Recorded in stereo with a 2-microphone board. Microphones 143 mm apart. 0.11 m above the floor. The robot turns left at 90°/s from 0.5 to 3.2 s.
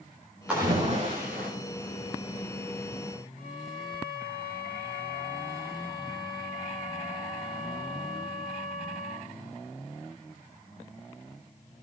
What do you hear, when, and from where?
0.5 s a splash: 10° right, 9.5 m; by 1.5 s 100° right, 9.5 m
3.4 s a violin: 70° left (ahead or behind), 6.5 m